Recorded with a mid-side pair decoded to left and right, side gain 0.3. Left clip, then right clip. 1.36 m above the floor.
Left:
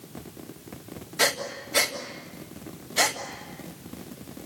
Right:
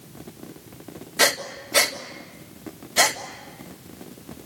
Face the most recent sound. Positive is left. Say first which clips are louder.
# right 4 dB
turn(degrees=-55)